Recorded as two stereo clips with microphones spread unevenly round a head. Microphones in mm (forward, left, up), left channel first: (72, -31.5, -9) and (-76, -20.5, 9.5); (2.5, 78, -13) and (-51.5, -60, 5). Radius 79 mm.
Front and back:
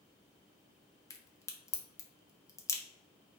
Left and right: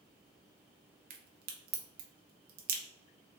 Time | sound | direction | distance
1.1 | a crack | 75° right | 0.9 m